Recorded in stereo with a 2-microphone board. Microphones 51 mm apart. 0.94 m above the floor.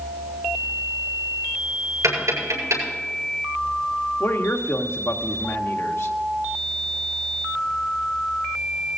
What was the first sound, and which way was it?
Tapping, 85° right.